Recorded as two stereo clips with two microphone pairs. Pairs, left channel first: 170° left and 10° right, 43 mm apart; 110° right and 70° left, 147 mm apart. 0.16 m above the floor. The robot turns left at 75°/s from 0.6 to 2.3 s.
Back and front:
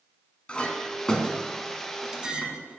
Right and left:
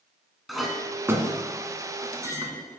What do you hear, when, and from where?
0.5 s a clink: 160° left, 1.0 m; by 2.8 s 35° left, 1.0 m